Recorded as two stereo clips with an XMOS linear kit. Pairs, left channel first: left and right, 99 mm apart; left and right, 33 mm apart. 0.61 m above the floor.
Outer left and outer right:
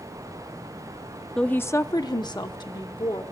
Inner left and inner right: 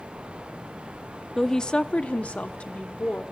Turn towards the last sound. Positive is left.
turn(degrees=50)  # may be behind; listen again after turning